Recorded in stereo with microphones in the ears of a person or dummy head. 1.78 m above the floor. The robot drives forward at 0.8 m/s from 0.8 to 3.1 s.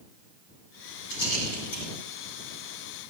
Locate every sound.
1.1 s a rattle: 60° left (ahead or behind), 5.5 m; by 1.9 s 55° left (ahead or behind), 6 m